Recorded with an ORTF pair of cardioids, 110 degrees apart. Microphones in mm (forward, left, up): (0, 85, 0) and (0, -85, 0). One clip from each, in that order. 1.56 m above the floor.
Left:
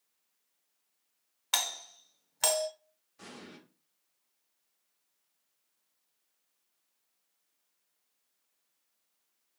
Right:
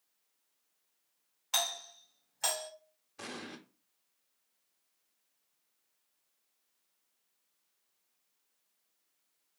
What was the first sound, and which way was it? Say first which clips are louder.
A doorbell: left 1 dB; 55° left.